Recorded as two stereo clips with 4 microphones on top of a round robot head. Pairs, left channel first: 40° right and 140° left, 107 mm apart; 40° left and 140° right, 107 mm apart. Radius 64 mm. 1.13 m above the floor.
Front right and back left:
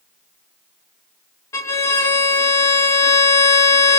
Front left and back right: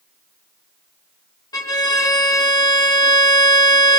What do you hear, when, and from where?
1.5 s a violin: 10° left, 0.7 m